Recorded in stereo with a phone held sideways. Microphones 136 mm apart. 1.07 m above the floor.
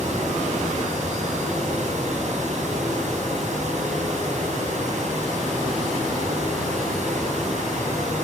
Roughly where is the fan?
Right.